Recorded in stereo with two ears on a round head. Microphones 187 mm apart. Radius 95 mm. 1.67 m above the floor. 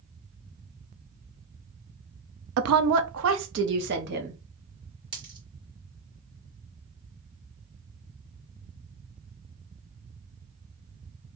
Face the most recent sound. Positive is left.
turn(degrees=-20)  # may be behind; listen again after turning